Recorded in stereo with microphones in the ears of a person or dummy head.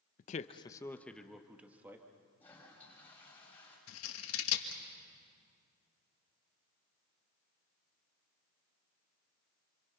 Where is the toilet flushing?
15° left (ahead or behind), 7 m.